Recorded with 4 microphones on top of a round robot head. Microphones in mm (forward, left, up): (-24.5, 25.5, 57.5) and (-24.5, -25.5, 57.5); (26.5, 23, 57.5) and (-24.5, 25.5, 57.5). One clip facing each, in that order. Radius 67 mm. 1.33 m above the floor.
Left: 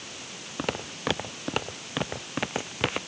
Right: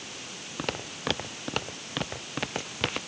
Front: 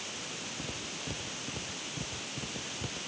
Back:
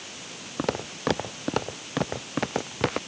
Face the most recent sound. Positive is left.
turn(degrees=165)